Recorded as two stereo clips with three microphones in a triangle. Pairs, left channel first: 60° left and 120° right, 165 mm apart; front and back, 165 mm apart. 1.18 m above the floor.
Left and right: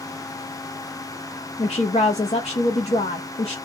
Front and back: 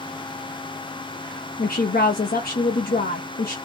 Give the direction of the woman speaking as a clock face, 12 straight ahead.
12 o'clock.